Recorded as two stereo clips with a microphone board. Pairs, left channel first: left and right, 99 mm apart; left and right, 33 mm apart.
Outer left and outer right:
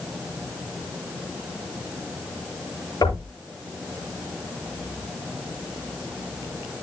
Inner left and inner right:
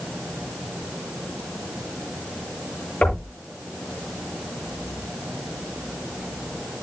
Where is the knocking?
45° left (ahead or behind), 10 m.